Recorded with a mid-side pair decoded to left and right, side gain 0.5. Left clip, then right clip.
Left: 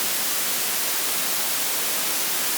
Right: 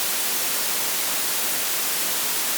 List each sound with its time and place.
Only background noise.